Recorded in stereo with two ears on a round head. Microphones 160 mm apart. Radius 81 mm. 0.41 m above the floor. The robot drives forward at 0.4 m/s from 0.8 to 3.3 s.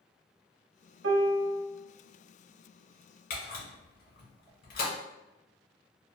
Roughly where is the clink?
No clink in this recording.